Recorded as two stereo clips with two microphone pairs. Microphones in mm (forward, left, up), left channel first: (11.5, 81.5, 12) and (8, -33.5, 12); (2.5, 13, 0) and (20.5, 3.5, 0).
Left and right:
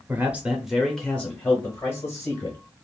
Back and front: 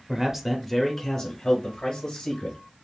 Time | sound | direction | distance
0.1 | a man speaking | 40° right | 0.9 m